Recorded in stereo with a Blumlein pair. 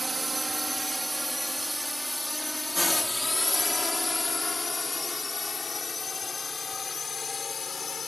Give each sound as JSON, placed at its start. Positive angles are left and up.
{"t": 0.0, "sound": "a drone", "azimuth_deg": -10}